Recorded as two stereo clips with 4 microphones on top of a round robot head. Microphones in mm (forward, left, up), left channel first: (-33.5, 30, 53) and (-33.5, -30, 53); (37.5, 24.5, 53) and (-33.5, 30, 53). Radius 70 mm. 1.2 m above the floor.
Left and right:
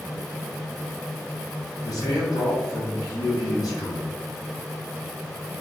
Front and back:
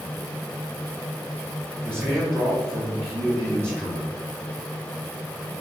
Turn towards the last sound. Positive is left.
turn(degrees=110)